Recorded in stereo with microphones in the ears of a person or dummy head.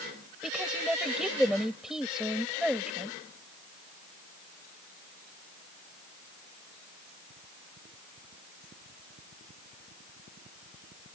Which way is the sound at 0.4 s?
Centre (ahead or behind).